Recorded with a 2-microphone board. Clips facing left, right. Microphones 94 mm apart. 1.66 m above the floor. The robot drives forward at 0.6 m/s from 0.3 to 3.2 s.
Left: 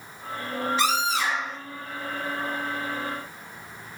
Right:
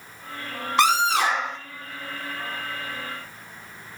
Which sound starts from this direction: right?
A scream, at 0.8 s.